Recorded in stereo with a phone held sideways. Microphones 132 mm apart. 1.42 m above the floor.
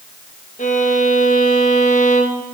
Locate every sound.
0.6 s a violin: 75° left (ahead or behind), 1.3 m